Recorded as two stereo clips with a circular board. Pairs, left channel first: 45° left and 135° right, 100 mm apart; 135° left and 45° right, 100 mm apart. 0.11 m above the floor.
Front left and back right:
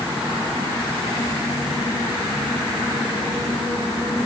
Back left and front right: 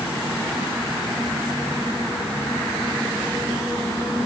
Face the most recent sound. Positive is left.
No sound to turn to.